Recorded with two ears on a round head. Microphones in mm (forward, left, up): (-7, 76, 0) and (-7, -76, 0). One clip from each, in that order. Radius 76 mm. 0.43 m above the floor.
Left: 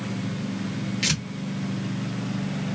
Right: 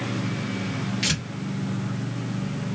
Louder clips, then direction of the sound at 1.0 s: Left 1 dB; 15° left (ahead or behind).